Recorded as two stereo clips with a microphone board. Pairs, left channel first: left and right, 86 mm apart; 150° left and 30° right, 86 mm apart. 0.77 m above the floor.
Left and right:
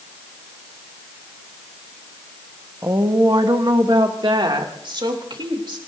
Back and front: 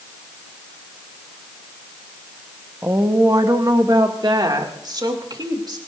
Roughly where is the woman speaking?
Right.